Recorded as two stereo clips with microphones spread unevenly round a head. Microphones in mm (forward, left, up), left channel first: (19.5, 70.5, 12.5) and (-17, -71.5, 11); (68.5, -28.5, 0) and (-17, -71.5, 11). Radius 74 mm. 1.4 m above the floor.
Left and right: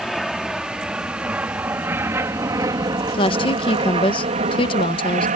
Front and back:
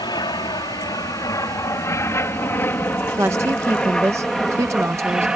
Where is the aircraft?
15° right; by 5.4 s 70° right.